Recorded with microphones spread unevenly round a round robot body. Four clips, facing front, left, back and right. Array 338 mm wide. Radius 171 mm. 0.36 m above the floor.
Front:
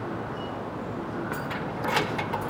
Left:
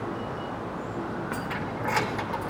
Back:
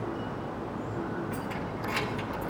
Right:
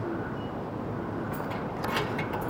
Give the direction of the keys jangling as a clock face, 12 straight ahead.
10 o'clock.